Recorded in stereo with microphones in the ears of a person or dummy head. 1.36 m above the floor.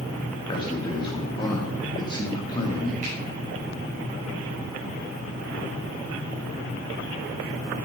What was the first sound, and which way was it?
A man speaking, 30° left (ahead or behind).